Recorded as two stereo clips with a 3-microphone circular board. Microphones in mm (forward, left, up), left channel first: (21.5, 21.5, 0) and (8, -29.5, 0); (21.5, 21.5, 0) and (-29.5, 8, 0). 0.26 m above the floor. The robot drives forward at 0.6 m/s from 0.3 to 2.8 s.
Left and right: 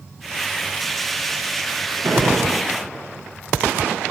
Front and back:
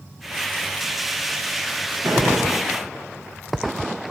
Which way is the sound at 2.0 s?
115° right.